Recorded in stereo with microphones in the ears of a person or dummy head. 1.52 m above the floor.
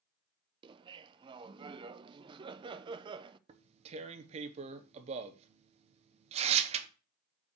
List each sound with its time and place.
0.6 s laughter: 30° right (ahead or behind), 0.7 m
3.5 s tearing paper: 35° right (ahead or behind), 1.0 m